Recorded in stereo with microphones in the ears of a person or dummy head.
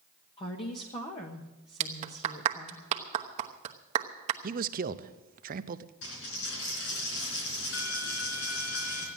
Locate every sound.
0.4 s a woman speaking: 25° left (ahead or behind), 1.3 m
1.8 s a clap: 35° right (ahead or behind), 1.0 m
4.4 s a man speaking: 45° right (ahead or behind), 0.7 m
6.0 s a dropped coin: 75° left (ahead or behind), 4 m